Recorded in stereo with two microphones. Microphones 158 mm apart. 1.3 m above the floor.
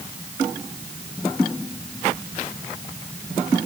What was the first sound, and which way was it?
Only background noise.